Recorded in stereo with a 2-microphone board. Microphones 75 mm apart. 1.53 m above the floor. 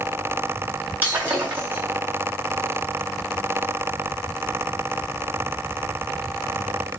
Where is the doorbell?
No doorbell in this recording.